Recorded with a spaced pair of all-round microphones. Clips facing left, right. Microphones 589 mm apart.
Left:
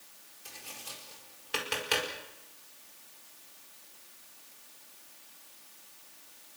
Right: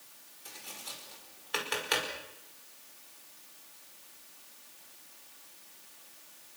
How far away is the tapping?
About 5 m.